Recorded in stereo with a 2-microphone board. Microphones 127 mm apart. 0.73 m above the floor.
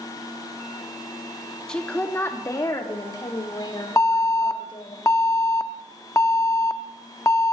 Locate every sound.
1.7 s a woman speaking: 5° left (ahead or behind), 1.1 m; by 5.0 s 45° left (ahead or behind), 3.5 m
4.0 s an alarm: 25° left (ahead or behind), 0.6 m